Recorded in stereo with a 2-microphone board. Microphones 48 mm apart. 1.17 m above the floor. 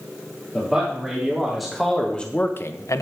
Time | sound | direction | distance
0.5 | a man speaking | 15° right (ahead or behind) | 2.5 m